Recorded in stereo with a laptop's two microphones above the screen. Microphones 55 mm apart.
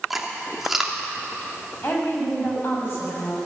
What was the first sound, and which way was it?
Chewing, 5° right (ahead or behind).